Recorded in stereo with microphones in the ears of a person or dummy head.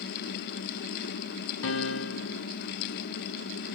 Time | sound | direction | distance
1.6 | a piano | 75° left (ahead or behind) | 0.5 m